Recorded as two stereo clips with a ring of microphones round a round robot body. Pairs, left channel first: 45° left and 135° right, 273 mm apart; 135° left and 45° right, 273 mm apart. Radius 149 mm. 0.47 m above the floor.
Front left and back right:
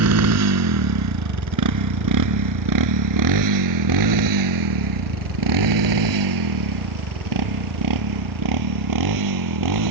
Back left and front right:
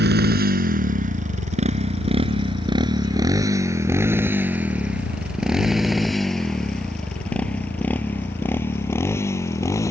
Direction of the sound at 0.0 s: 100° right.